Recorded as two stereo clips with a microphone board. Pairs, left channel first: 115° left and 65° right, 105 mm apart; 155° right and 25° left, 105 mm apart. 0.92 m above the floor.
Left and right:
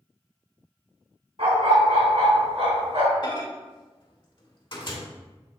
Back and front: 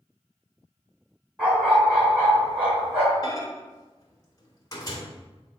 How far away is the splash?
I don't hear a splash.